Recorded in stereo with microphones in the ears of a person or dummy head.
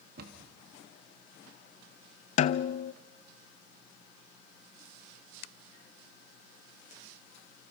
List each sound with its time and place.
0.2 s a cupboard door: 60° right (ahead or behind), 2.5 m
2.4 s a snare drum: 35° left (ahead or behind), 0.5 m